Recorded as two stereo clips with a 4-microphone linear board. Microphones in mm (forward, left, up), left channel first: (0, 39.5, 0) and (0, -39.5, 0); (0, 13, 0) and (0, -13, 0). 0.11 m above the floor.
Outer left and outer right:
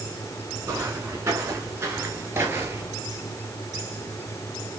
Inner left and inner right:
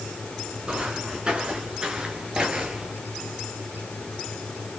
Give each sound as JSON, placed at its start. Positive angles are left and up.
{"t": 0.7, "sound": "footsteps", "side_deg": -40, "distance_m": 5.5}